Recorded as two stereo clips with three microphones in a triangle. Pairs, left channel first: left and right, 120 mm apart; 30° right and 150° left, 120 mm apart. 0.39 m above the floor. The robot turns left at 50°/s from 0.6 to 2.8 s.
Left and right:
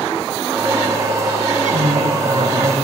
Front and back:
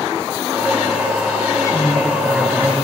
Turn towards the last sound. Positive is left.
turn(degrees=-155)